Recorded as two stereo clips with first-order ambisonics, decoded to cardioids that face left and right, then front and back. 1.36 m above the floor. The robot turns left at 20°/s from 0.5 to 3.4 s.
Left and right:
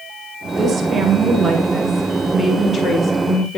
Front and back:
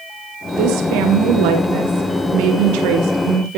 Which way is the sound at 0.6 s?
155° right.